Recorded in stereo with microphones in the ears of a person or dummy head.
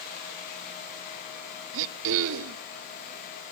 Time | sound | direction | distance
1.7 | throat clearing | 65° right (ahead or behind) | 0.8 m